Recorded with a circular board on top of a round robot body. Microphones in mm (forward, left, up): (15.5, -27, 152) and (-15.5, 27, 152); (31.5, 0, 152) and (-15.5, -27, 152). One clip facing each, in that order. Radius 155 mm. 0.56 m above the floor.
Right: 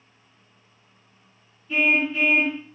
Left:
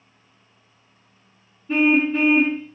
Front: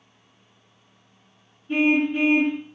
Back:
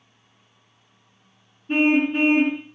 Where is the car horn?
170° left, 5 m.